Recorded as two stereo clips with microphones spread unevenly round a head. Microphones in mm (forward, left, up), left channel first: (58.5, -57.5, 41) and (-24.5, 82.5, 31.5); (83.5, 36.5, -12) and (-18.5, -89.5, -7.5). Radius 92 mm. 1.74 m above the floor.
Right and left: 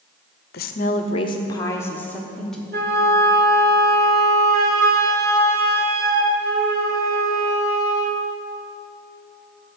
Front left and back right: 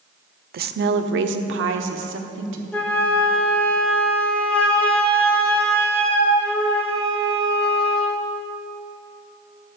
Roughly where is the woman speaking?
Right.